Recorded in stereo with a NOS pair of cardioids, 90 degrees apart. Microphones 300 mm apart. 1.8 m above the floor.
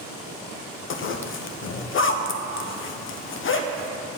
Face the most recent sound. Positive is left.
turn(degrees=45)